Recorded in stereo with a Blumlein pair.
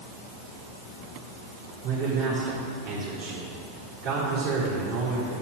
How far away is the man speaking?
About 3.5 m.